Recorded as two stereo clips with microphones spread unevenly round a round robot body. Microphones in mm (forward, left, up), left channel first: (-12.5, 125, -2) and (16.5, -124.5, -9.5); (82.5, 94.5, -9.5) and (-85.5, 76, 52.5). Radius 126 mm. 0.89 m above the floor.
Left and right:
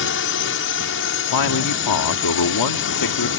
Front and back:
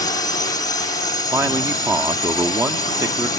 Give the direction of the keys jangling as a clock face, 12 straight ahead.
I don't hear keys jangling.